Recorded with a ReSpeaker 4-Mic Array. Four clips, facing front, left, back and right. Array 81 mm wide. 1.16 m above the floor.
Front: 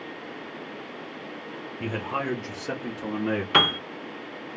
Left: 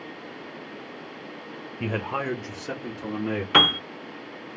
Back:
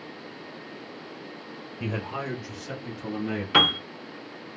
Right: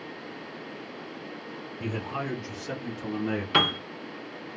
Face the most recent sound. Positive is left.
turn(degrees=75)